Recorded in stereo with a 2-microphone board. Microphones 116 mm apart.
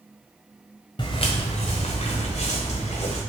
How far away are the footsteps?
About 0.7 m.